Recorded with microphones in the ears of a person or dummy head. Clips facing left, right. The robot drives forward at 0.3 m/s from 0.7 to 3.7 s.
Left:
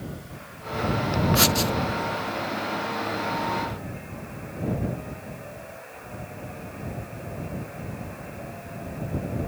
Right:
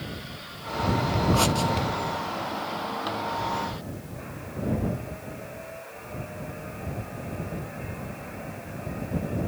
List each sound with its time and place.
1.4 s writing: 25° left (ahead or behind)